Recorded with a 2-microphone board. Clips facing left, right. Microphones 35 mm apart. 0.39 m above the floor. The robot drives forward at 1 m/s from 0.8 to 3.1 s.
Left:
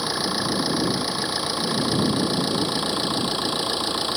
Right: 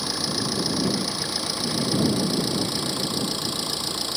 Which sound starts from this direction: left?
An engine running, at 0.0 s.